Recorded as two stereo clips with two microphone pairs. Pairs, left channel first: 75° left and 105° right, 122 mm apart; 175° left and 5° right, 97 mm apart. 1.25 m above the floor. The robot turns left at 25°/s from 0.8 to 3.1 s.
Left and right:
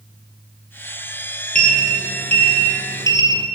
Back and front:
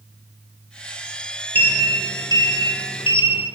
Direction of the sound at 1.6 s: 115° right.